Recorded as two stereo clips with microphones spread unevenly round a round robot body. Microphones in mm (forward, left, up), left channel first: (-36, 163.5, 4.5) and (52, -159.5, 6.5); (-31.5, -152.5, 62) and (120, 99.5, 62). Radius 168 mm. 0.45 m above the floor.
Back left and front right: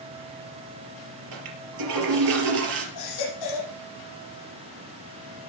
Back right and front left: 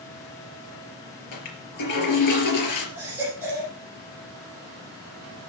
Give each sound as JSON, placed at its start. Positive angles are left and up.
{"t": 1.3, "sound": "a toilet flushing", "azimuth_deg": -100, "distance_m": 4.0}
{"t": 3.0, "sound": "a baby crying", "azimuth_deg": 140, "distance_m": 10.0}